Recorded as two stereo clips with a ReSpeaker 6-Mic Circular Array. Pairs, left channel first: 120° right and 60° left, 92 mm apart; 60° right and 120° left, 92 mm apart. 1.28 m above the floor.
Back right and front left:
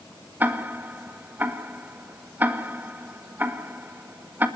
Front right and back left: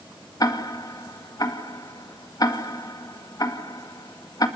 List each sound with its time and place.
0.4 s ticking: 10° right, 1.8 m